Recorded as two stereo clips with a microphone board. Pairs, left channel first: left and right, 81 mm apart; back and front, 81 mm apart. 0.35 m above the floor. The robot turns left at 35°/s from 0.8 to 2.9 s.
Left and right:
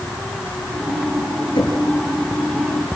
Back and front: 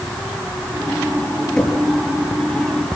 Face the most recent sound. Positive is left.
turn(degrees=50)